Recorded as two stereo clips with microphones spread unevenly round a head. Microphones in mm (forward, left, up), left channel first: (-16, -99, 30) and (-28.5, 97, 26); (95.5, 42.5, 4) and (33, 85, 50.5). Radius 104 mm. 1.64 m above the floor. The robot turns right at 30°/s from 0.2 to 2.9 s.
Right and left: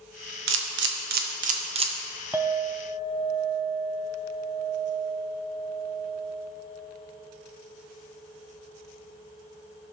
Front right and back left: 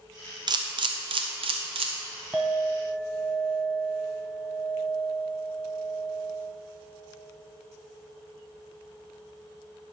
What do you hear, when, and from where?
0.5 s a camera shutter: 115° left, 1.1 m; by 1.9 s 160° left, 1.1 m
2.3 s a clink: 170° left, 0.7 m; by 6.5 s 170° right, 0.7 m